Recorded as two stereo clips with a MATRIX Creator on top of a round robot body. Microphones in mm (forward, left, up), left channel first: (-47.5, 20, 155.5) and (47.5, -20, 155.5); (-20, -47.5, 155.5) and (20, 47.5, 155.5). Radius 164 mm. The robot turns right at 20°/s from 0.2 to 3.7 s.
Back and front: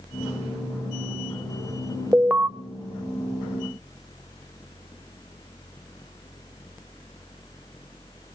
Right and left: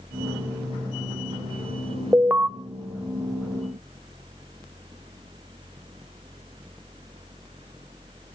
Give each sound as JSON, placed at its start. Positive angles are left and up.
{"t": 2.1, "sound": "an alarm", "azimuth_deg": 25, "distance_m": 1.1}